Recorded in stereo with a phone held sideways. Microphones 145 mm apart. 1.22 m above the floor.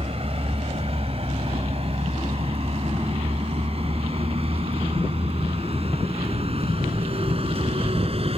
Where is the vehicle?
45° right (ahead or behind).